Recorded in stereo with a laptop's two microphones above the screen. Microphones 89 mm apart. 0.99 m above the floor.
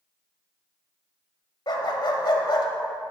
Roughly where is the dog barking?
Left.